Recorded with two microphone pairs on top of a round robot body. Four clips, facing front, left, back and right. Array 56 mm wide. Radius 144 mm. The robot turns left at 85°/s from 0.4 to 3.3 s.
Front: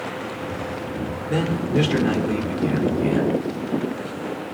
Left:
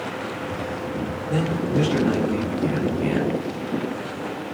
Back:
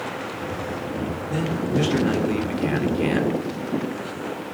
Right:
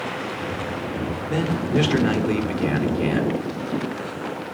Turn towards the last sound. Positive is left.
turn(degrees=170)